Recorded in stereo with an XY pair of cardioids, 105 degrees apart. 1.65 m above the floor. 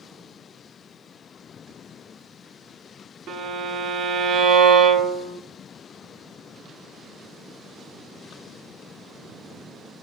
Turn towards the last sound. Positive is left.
turn(degrees=-65)